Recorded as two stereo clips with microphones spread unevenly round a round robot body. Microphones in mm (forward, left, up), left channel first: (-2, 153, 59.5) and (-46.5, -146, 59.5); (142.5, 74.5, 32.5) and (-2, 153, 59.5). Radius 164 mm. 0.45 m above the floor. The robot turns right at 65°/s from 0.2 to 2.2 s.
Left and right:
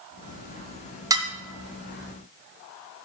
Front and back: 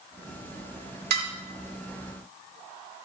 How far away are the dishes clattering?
About 1.4 m.